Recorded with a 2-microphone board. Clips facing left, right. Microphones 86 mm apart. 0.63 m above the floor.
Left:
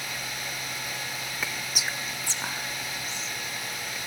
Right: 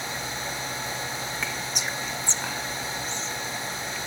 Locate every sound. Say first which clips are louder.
1.4 s whispering: right 2 dB; 5° left (ahead or behind), 0.8 m